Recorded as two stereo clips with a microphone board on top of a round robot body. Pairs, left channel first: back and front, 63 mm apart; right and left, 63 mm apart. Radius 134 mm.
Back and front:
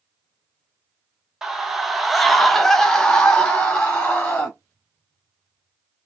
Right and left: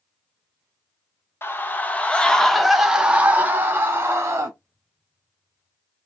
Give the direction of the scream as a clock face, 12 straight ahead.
3 o'clock.